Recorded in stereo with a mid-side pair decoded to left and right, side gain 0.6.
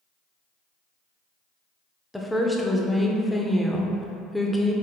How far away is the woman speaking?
About 0.8 m.